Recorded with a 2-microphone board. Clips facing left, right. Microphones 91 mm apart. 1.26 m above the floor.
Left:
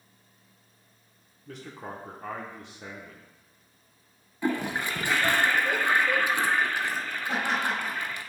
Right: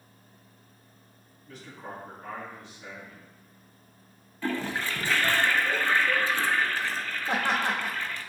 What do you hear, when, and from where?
1.5 s a man speaking: 60° left (ahead or behind), 1.2 m
4.4 s a toilet flushing: 15° left (ahead or behind), 0.5 m
7.3 s laughter: 65° right (ahead or behind), 2 m